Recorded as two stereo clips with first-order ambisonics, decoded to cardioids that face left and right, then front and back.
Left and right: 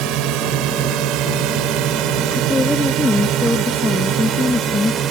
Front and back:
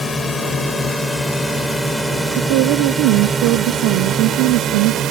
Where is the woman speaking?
175° left.